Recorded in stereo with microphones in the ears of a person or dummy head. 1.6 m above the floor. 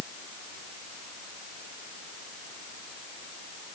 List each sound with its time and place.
Only background noise.